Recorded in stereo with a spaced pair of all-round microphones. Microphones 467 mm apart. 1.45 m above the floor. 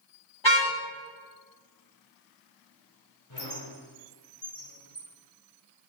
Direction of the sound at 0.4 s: 70° left (ahead or behind).